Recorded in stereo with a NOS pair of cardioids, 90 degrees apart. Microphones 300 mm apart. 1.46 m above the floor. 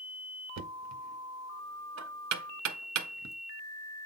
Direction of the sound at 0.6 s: 70° right.